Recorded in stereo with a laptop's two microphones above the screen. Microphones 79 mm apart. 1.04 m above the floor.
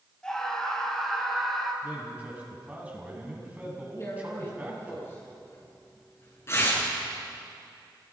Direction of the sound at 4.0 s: 35° left (ahead or behind).